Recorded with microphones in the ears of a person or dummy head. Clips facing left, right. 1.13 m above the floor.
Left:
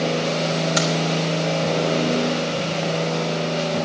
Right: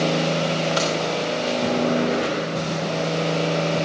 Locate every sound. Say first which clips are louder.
0.8 s keys jangling: left 1 dB; 20° left (ahead or behind), 3 m